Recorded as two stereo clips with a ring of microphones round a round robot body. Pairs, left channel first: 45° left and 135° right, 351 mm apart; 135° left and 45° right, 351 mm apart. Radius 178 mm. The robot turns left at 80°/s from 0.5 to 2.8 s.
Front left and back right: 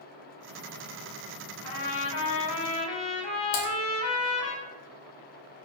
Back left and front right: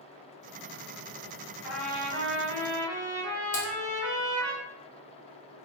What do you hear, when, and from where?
1.6 s a trumpet: 125° left, 1.2 m; by 4.5 s 35° left, 1.2 m
3.5 s typing on a keyboard: 65° left, 0.8 m